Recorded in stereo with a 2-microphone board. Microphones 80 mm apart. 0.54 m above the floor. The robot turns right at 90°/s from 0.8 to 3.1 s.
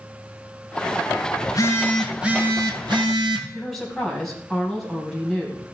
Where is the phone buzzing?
125° left, 1.3 m; by 3.4 s 85° right, 1.3 m.